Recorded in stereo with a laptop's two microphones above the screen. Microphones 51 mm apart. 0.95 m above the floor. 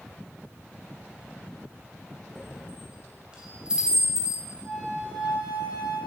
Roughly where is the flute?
Right.